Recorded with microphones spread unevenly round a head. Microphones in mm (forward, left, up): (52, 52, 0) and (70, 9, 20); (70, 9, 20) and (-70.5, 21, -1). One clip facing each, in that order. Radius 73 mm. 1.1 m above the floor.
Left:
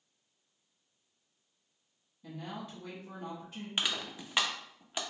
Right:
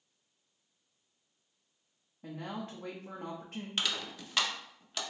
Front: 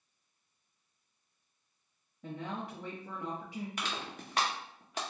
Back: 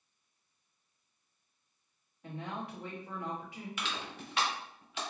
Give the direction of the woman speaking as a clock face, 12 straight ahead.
1 o'clock.